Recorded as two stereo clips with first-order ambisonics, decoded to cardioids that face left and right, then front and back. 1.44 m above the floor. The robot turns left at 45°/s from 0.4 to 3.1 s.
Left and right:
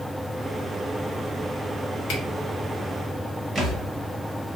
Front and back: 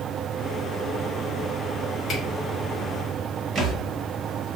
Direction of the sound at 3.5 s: 150° right.